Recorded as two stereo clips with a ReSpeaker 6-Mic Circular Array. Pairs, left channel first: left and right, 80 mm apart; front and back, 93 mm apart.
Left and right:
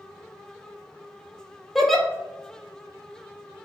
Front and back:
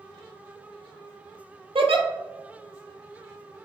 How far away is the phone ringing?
I don't hear a phone ringing.